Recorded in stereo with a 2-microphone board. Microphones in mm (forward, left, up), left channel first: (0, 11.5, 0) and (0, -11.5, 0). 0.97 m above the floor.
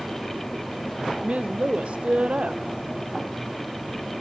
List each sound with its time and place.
1.2 s a woman speaking: 65° right (ahead or behind), 0.5 m